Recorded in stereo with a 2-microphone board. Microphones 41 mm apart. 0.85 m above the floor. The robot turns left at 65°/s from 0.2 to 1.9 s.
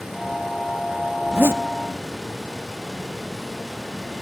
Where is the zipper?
55° right (ahead or behind), 0.6 m; by 1.6 s 75° right (ahead or behind), 0.6 m.